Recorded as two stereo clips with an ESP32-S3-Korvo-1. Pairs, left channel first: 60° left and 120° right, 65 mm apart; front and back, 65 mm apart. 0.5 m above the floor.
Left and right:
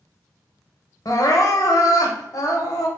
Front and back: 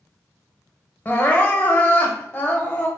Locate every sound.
1.1 s crying: 60° left, 0.7 m